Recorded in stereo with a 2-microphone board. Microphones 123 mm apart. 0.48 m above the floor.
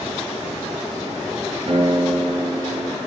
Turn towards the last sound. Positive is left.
turn(degrees=-60)  # may be behind; listen again after turning